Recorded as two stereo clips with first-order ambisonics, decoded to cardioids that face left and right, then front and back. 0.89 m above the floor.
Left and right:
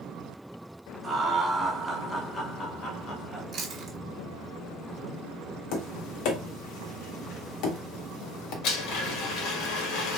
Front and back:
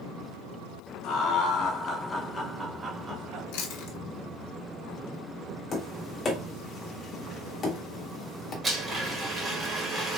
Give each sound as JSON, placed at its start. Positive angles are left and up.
{"t": 1.0, "sound": "laughter", "azimuth_deg": -20, "distance_m": 1.3}
{"t": 3.5, "sound": "chewing", "azimuth_deg": -25, "distance_m": 1.0}
{"t": 5.7, "sound": "tapping", "azimuth_deg": 65, "distance_m": 1.2}
{"t": 8.6, "sound": "a blender", "azimuth_deg": 110, "distance_m": 1.1}